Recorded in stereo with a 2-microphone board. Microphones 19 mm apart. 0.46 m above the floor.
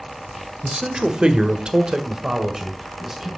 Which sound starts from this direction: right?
A man speaking, at 0.6 s.